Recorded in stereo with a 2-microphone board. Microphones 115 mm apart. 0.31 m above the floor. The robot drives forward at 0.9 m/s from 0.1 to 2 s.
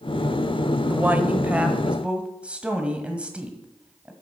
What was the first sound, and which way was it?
A woman speaking, 15° right (ahead or behind).